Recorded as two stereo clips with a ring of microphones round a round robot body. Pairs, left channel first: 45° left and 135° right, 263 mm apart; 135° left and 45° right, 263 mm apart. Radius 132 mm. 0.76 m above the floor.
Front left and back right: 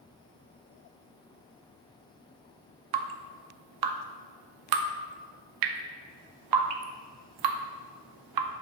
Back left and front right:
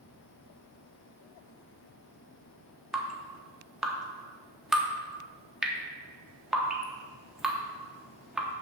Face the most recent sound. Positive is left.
turn(degrees=-135)